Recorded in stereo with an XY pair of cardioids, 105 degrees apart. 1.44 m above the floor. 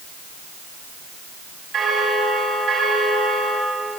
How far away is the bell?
About 4 m.